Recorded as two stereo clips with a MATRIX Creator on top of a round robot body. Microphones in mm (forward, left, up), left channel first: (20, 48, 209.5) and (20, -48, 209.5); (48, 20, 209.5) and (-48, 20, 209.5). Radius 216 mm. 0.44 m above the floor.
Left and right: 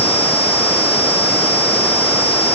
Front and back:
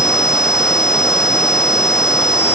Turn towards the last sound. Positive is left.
No sound to turn to.